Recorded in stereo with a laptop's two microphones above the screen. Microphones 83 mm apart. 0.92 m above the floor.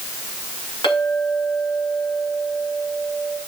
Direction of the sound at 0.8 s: 80° left.